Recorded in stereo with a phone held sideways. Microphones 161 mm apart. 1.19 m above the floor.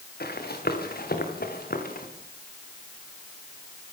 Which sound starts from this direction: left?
Running footsteps, at 0.2 s.